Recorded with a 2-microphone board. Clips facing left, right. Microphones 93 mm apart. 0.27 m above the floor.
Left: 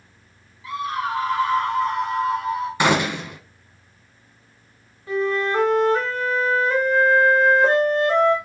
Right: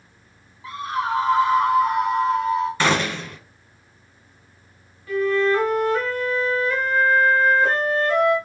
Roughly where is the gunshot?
Centre.